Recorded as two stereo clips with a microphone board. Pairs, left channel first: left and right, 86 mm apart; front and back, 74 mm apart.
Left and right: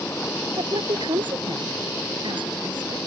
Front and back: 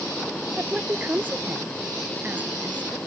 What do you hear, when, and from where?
0.6 s a woman speaking: 110° right